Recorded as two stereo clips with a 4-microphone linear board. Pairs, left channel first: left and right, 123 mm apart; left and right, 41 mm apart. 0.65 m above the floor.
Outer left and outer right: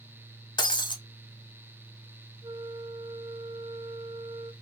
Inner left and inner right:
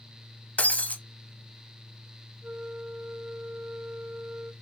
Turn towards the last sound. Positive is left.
turn(degrees=-40)  # may be behind; listen again after turning